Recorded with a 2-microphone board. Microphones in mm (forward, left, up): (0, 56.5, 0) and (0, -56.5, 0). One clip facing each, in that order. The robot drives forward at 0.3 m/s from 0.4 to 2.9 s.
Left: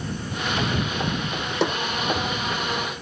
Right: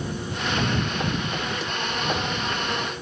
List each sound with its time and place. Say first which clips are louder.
1.6 s a snare drum: left 8 dB; 65° left (ahead or behind)